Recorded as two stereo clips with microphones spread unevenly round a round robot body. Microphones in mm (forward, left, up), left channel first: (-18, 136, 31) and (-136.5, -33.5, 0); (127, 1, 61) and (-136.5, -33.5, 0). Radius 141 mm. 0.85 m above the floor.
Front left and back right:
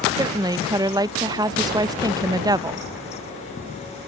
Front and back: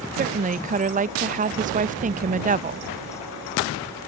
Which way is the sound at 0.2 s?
175° right.